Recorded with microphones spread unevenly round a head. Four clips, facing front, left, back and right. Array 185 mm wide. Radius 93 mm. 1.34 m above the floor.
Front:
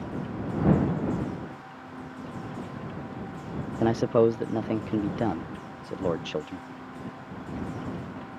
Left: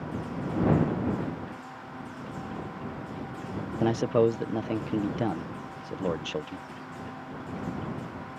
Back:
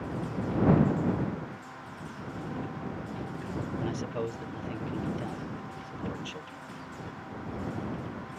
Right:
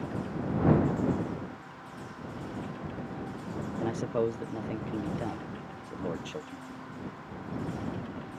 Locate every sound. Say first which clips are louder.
3.8 s a man speaking: left 7 dB, front 16 dB; 35° left